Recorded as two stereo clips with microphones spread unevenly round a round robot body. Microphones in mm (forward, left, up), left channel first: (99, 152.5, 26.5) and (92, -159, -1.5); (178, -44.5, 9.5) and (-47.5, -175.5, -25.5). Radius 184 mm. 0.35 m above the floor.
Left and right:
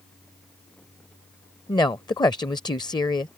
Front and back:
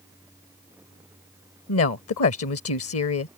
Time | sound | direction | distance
1.7 | a woman speaking | 10° left | ?